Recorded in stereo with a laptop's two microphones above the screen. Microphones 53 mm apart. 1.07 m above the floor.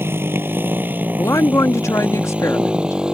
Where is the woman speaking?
75° left (ahead or behind).